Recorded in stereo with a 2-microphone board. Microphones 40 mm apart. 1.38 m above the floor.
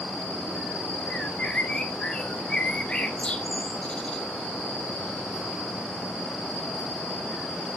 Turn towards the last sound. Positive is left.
turn(degrees=30)  # may be behind; listen again after turning